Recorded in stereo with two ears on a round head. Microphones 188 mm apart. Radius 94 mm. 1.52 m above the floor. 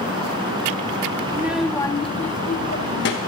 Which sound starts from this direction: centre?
A child speaking, at 1.3 s.